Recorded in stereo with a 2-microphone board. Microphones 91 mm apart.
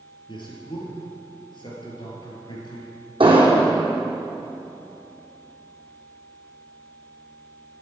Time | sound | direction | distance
0.3 | a man speaking | 55° left (ahead or behind) | 3.5 m
3.2 | an explosion | 70° right (ahead or behind) | 3 m